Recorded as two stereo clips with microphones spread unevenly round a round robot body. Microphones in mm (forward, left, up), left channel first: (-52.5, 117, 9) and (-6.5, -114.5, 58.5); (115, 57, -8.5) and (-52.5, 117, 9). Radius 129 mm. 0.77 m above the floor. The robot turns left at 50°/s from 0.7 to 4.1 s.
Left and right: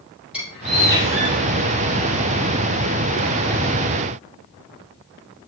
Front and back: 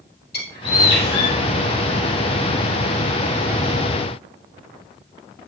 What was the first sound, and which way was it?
A bird, 5° left.